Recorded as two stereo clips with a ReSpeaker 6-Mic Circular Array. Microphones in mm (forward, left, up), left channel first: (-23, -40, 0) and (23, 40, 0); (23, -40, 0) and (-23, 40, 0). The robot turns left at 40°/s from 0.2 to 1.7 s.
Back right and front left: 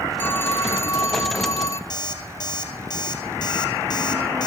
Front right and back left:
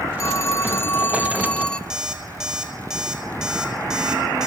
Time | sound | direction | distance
0.2 | a phone ringing | 70° right | 0.9 m
1.9 | an alarm clock | 160° right | 2.5 m